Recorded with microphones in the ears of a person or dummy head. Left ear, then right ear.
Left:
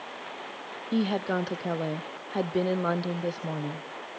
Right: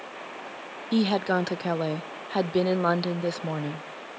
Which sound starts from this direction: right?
A woman speaking, at 0.9 s.